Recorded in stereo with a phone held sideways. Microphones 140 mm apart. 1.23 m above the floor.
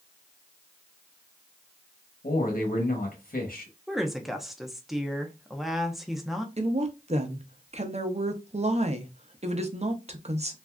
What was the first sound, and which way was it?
A man speaking, 80° left.